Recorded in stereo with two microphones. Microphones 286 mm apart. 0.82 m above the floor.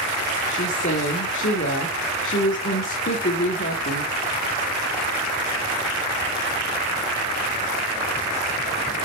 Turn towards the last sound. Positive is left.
turn(degrees=45)  # may be behind; listen again after turning